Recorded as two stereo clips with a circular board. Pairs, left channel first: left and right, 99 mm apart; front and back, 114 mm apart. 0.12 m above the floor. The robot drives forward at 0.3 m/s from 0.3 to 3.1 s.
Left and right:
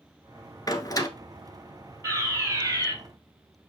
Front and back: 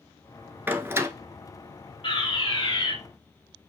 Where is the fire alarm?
35° right, 4.5 m.